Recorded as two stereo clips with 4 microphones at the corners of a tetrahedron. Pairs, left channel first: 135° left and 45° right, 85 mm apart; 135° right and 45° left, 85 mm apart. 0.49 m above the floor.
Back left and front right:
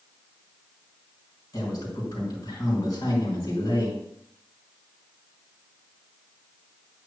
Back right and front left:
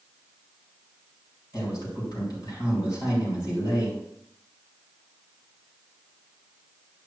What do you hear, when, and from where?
1.5 s a man speaking: 175° right, 5 m